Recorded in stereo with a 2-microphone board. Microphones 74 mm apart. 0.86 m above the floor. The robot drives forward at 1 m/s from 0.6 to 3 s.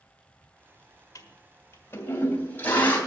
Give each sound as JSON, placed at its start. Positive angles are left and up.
{"t": 1.1, "sound": "a toilet flushing", "side_deg": 50, "distance_m": 1.3}